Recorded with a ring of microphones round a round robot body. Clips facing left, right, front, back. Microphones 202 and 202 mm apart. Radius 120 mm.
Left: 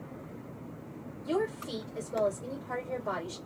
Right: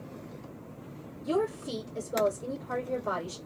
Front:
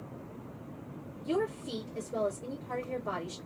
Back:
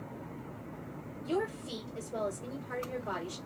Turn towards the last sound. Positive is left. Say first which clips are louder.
# right 2 dB, front 2 dB
turn(degrees=-40)